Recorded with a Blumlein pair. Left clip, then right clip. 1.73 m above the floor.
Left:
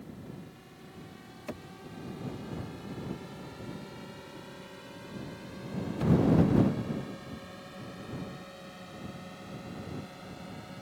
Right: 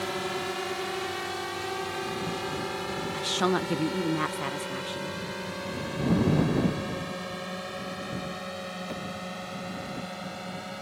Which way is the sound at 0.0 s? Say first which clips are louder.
Right 18 dB; 45° right.